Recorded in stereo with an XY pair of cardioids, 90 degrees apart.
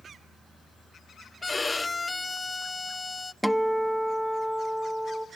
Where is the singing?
No singing in this recording.